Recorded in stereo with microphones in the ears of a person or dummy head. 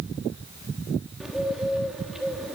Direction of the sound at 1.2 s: 5° right (ahead or behind).